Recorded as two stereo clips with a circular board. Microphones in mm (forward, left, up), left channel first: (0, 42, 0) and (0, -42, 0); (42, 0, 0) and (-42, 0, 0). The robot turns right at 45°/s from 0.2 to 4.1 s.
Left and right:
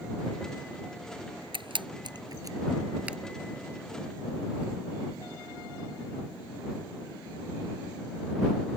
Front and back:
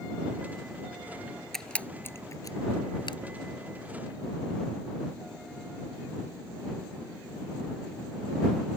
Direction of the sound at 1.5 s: 85° right.